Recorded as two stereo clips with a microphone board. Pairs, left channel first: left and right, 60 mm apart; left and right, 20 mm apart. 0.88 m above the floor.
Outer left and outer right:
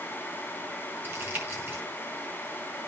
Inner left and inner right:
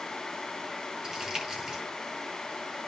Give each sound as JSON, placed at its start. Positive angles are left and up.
{"t": 1.0, "sound": "crumpling", "side_deg": -40, "distance_m": 5.5}